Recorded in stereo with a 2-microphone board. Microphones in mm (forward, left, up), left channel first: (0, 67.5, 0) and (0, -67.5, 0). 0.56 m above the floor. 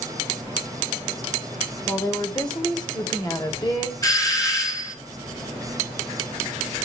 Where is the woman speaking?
30° left (ahead or behind), 2 m.